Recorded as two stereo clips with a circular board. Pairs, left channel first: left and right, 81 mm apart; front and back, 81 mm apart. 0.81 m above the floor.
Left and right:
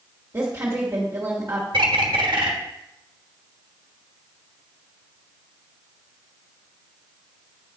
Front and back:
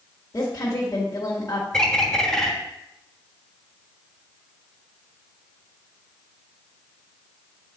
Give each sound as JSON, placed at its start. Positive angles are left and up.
{"t": 0.3, "sound": "a woman speaking", "azimuth_deg": -45, "distance_m": 1.7}
{"t": 1.7, "sound": "a bird", "azimuth_deg": -80, "distance_m": 1.1}